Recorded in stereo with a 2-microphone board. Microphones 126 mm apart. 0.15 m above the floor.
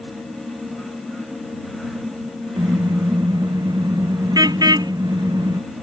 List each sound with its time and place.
2.6 s a car horn: 30° right (ahead or behind)